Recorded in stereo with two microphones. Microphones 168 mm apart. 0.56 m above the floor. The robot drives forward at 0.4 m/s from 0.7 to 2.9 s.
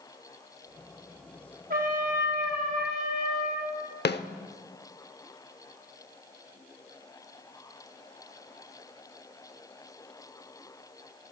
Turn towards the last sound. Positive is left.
turn(degrees=90)